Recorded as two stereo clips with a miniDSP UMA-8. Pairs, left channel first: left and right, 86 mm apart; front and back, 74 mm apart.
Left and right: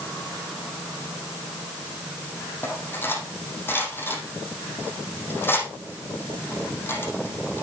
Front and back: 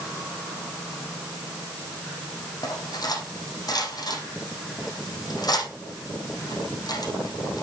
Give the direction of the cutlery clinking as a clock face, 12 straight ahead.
11 o'clock.